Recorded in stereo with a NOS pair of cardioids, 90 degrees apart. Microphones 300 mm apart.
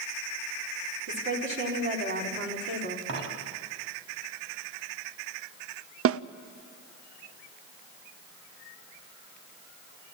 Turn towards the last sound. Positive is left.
turn(degrees=-50)